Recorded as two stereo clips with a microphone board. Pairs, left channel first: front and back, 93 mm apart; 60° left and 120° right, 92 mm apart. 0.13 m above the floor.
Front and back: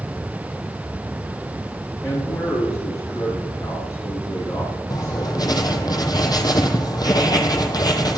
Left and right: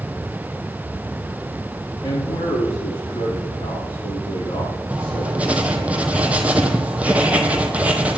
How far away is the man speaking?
About 7 m.